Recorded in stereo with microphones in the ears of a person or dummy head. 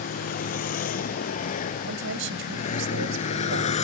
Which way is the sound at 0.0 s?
50° left (ahead or behind).